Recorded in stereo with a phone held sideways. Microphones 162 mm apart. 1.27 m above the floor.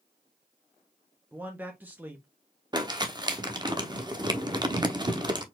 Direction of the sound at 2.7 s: 25° right (ahead or behind).